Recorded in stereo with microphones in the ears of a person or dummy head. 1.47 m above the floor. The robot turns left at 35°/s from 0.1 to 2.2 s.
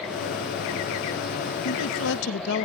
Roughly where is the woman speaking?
Left.